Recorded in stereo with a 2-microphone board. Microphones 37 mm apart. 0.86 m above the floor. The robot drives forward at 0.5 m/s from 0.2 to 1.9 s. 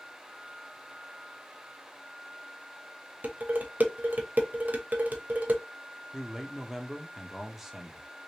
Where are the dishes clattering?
55° right (ahead or behind), 0.8 m.